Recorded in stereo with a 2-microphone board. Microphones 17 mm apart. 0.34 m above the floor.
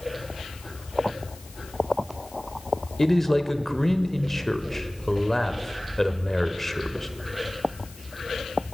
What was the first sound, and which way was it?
A man speaking, 20° left (ahead or behind).